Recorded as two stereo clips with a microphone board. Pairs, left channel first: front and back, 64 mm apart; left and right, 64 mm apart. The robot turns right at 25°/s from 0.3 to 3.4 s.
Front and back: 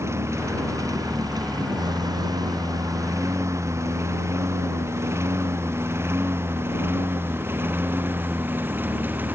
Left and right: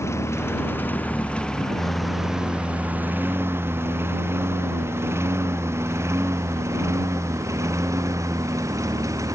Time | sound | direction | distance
0.0 | a lawn mower | 135° left | ?